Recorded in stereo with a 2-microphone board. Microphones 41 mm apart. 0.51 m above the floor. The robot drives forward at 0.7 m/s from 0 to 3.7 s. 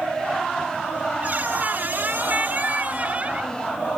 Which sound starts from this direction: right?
A squeak, at 1.2 s.